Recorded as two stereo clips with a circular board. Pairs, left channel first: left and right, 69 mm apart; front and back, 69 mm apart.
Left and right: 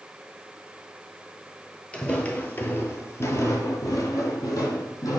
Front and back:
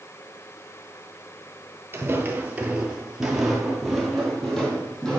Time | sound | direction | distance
1.9 | footsteps | 160° left | 1.2 m